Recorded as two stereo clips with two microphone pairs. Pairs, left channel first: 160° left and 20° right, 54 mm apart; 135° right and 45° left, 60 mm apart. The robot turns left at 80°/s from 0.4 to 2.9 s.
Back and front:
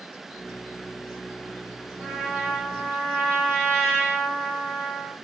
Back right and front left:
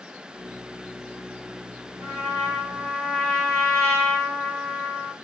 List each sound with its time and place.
2.0 s a trumpet: 40° left, 1.4 m; by 5.1 s 35° right, 1.4 m